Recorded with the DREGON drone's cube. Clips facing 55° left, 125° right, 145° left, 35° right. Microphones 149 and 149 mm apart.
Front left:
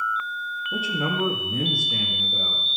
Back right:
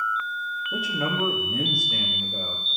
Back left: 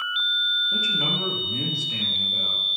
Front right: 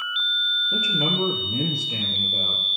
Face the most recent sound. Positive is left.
turn(degrees=-25)